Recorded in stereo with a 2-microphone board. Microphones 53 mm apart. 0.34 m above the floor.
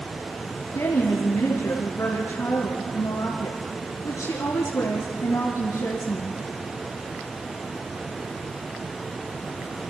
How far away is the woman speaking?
About 4.5 m.